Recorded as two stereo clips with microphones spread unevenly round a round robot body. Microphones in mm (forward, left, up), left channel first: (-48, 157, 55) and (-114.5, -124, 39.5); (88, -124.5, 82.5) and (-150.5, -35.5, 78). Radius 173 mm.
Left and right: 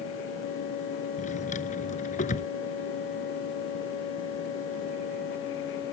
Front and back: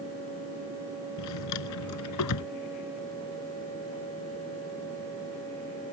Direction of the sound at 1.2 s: 5° left.